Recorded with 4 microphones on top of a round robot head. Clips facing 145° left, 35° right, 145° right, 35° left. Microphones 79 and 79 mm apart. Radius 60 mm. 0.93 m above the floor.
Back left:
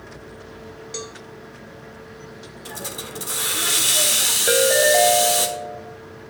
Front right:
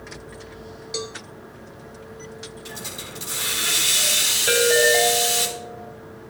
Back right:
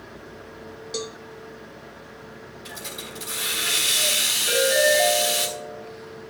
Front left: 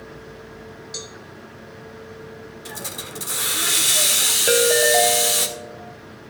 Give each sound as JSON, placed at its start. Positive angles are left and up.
{"t": 0.9, "sound": "a cowbell", "azimuth_deg": -115, "distance_m": 1.2}
{"t": 2.6, "sound": "a hiss", "azimuth_deg": 95, "distance_m": 1.4}
{"t": 4.5, "sound": "a ringtone", "azimuth_deg": 75, "distance_m": 2.5}